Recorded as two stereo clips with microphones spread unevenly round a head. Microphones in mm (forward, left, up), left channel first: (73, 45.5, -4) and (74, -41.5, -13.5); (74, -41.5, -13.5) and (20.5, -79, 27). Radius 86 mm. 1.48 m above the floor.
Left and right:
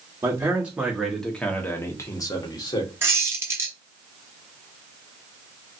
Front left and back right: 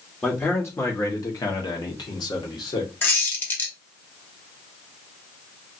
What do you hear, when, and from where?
0.2 s a man speaking: 25° right, 1.1 m; by 2.9 s 55° left, 1.3 m
3.0 s a squeak: 75° right, 1.1 m